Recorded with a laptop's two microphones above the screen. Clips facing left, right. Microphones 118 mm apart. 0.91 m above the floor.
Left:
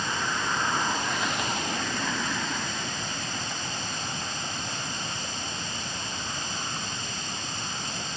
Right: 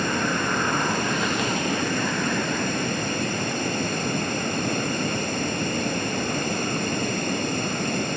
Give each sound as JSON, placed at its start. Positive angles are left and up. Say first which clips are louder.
{"t": 0.0, "sound": "running water", "louder": "right 6 dB", "side_deg": -60}